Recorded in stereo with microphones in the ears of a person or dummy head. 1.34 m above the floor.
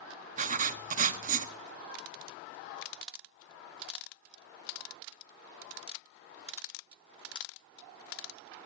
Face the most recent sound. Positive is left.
turn(degrees=-40)  # may be behind; listen again after turning